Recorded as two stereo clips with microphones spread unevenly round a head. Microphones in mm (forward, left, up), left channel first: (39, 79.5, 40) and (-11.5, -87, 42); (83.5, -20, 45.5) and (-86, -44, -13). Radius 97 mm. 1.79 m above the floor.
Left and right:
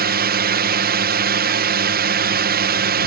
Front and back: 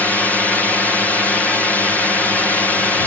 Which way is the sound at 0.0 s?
80° right.